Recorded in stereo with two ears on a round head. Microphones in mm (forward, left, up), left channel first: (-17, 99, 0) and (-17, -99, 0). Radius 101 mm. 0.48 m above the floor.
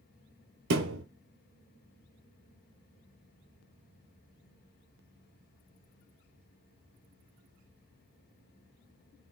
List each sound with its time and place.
0.7 s a thud: 60° right (ahead or behind), 0.8 m